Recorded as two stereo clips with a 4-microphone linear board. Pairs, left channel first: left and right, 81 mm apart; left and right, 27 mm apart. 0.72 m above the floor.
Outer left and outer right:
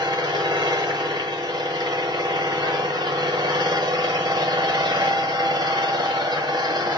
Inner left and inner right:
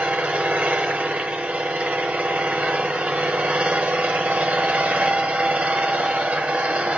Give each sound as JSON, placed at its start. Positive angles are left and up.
{"t": 0.0, "sound": "an engine running", "side_deg": -65, "distance_m": 1.1}